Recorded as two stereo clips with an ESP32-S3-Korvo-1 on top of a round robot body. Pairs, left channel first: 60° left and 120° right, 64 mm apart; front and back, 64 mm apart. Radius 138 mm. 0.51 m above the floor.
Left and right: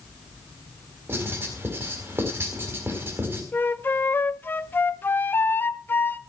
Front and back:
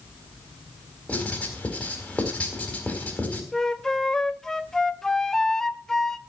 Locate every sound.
1.1 s writing: 70° right, 4 m
3.5 s a flute: 75° left, 0.9 m